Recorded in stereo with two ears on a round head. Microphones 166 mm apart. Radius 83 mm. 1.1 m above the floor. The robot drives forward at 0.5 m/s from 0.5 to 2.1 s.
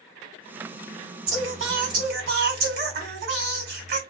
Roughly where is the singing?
Right.